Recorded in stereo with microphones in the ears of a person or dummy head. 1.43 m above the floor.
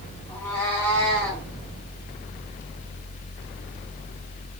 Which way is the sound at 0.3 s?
20° left (ahead or behind).